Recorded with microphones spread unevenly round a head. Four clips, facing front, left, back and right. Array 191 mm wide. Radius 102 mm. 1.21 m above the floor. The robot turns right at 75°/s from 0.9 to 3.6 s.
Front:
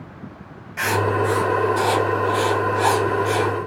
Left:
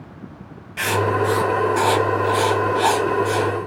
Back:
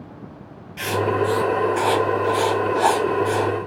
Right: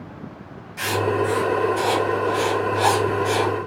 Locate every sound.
0.8 s writing: 30° left, 0.7 m; by 3.5 s 130° right, 0.7 m